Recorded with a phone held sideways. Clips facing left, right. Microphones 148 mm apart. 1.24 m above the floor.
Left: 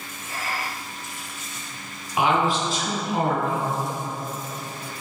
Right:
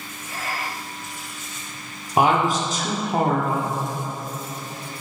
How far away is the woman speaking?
About 0.7 m.